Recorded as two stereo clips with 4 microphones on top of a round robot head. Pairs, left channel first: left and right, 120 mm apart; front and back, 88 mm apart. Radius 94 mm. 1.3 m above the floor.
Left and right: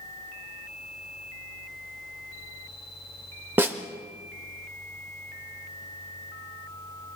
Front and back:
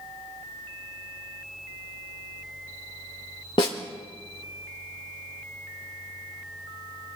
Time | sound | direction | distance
3.6 | a snare drum | 25° right | 0.6 m